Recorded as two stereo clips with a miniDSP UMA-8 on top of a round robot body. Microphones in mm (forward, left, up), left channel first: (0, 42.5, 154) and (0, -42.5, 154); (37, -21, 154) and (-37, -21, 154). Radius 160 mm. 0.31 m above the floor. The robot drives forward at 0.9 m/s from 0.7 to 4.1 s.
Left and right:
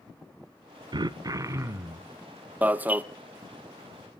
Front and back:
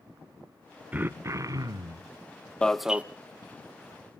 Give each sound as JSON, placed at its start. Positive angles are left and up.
{"t": 0.9, "sound": "throat clearing", "azimuth_deg": -110, "distance_m": 0.8}
{"t": 2.6, "sound": "an alarm", "azimuth_deg": -55, "distance_m": 0.8}